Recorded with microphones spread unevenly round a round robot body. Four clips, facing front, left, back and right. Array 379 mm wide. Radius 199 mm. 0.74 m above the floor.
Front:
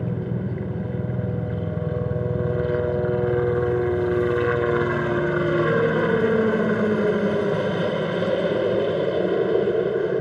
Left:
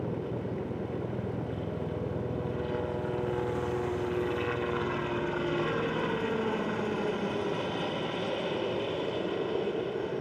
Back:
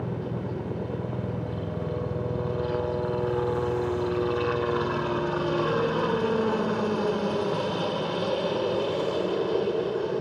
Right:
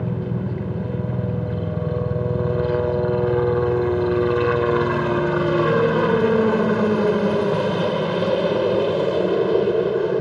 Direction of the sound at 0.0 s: 55° right.